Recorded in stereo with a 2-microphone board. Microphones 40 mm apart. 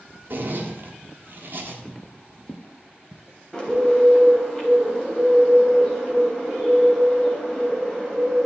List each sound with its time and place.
0.3 s a zipper: 50° right (ahead or behind), 1.5 m
1.9 s footsteps: 15° left (ahead or behind), 0.8 m; by 4.4 s 55° left (ahead or behind), 1.9 m
3.5 s a bird: 15° left (ahead or behind), 2.5 m